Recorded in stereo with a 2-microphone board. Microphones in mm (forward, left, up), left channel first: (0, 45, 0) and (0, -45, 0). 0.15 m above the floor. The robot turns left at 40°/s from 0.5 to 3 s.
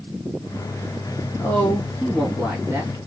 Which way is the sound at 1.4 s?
30° left.